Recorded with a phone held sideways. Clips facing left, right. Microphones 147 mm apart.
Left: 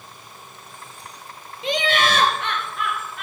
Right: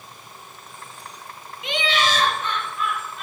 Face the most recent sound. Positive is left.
turn(degrees=80)